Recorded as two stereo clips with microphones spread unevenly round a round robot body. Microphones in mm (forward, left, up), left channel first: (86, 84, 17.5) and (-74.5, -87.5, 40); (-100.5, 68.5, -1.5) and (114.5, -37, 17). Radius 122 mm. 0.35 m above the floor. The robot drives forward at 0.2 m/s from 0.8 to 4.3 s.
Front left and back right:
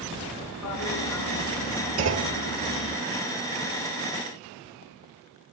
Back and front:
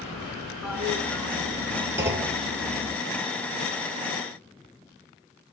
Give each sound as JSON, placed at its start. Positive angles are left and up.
{"t": 0.6, "sound": "a toilet flushing", "azimuth_deg": 60, "distance_m": 1.8}
{"t": 2.0, "sound": "a clunk", "azimuth_deg": -105, "distance_m": 1.5}